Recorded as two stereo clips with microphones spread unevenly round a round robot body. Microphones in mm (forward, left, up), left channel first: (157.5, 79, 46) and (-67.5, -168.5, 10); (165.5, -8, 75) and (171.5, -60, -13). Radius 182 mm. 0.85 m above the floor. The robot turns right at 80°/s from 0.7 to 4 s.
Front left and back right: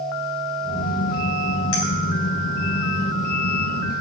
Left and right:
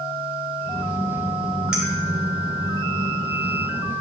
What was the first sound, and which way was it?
A clink, 5° right.